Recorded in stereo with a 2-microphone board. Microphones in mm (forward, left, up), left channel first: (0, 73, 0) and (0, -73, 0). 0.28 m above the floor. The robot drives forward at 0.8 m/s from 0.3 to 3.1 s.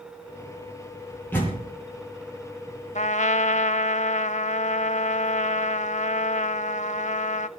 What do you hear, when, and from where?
1.3 s a door slam: 15° left (ahead or behind), 7 m
3.0 s a trumpet: 50° left (ahead or behind), 0.6 m; by 7.5 s 55° left (ahead or behind), 0.6 m